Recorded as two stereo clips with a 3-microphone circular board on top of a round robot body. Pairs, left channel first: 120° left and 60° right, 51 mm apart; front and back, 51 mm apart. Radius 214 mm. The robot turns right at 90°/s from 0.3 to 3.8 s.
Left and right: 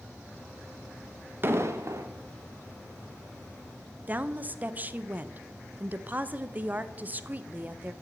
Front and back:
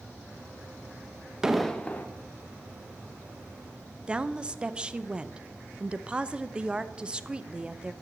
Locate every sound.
1.4 s an explosion: 105° right, 1.0 m; by 2.1 s 45° right, 1.0 m
4.1 s a woman speaking: 110° right, 0.7 m